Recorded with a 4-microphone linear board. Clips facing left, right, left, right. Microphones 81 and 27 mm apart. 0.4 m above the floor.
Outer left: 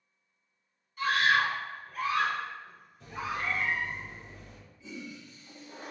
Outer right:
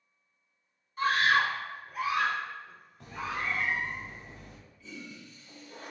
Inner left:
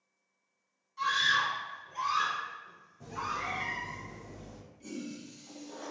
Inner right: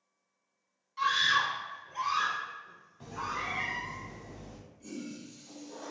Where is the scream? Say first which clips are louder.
Outer right 1 dB, inner right 1 dB; 40° right (ahead or behind), 1.0 m; by 3.6 s 20° left (ahead or behind), 1.6 m.